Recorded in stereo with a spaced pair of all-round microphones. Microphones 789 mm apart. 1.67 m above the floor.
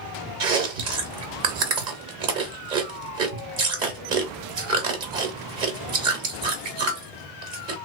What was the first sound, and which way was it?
Chewing, 75° right (ahead or behind).